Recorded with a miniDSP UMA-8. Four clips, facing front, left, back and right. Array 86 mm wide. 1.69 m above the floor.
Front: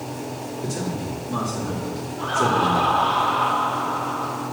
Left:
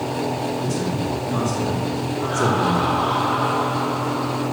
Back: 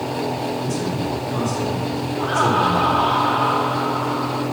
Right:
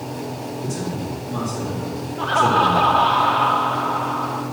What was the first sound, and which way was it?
A man speaking, 25° left.